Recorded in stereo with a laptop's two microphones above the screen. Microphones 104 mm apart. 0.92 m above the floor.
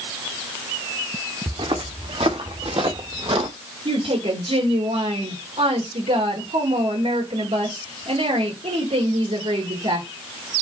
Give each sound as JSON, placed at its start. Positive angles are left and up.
{"t": 1.5, "sound": "footsteps", "side_deg": -70, "distance_m": 3.0}
{"t": 3.9, "sound": "a woman speaking", "side_deg": -80, "distance_m": 3.5}